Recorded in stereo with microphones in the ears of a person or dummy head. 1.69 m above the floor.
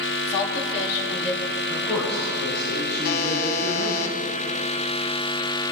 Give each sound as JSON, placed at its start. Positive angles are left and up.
{"t": 0.3, "sound": "a woman speaking", "side_deg": 30, "distance_m": 3.0}
{"t": 1.7, "sound": "a man speaking", "side_deg": 5, "distance_m": 6.5}
{"t": 3.0, "sound": "a buzzer", "side_deg": 50, "distance_m": 1.7}